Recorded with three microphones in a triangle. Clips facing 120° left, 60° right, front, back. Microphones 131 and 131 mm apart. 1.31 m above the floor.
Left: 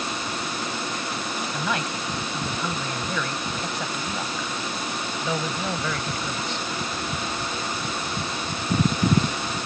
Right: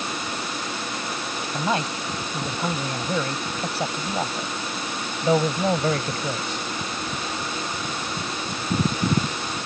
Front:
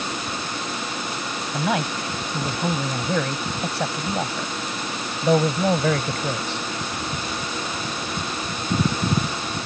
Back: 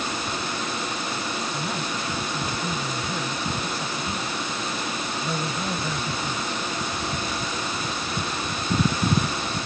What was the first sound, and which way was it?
A man speaking, 5° left.